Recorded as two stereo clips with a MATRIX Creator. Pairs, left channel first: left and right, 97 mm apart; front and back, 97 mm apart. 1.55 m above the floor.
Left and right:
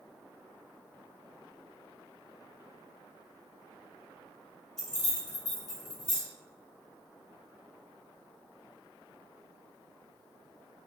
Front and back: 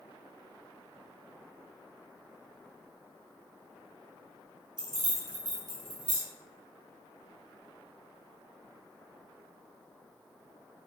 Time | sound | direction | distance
4.8 | keys jangling | 175° left | 1.0 m